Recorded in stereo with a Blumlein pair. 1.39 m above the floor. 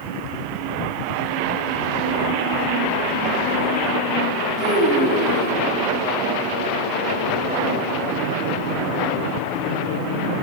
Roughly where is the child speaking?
Ahead.